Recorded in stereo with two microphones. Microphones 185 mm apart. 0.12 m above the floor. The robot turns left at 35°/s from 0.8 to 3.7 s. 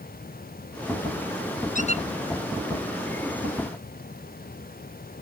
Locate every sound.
1.8 s a squeak: 45° left (ahead or behind); by 2.0 s 30° left (ahead or behind)